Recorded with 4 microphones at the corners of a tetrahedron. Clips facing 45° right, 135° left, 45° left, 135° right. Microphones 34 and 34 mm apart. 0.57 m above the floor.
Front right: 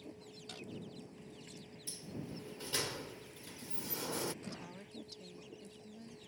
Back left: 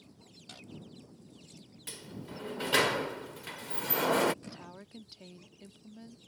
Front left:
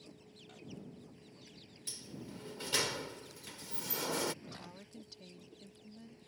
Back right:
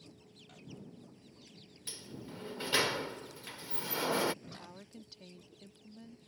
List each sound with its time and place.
0.0 s a vehicle: 30° right
1.9 s a sliding door: 160° left
4.4 s a woman speaking: 155° left